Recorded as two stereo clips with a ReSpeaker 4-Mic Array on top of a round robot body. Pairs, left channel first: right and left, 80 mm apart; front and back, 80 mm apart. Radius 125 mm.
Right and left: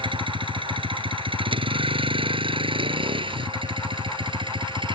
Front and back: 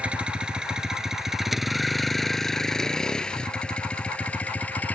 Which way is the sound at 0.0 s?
105° left.